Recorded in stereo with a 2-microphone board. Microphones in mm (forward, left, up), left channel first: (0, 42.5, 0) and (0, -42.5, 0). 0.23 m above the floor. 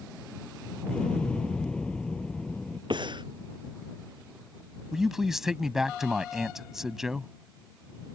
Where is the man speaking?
5° right (ahead or behind).